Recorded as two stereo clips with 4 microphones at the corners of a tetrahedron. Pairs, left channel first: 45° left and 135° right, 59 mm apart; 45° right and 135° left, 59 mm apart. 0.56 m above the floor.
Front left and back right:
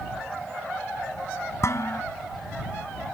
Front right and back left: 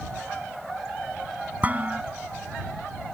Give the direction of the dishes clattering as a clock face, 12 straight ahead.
10 o'clock.